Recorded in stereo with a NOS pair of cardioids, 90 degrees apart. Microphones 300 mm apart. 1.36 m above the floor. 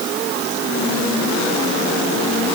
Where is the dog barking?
No dog barking in this recording.